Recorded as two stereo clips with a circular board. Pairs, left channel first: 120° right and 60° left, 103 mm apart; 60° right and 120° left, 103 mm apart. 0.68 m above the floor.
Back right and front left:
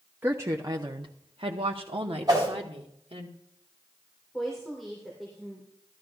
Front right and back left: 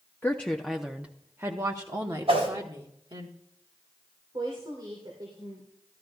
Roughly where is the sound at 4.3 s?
Behind left.